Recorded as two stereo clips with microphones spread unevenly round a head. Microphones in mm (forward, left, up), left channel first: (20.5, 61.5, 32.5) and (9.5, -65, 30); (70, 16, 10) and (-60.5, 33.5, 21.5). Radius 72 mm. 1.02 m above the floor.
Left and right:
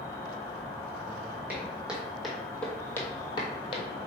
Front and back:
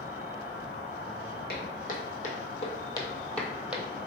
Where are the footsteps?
15° right, 2.0 m; by 3.9 s 110° left, 1.3 m.